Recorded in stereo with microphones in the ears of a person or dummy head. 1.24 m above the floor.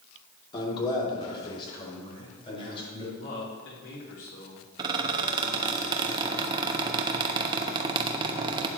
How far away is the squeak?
About 0.8 m.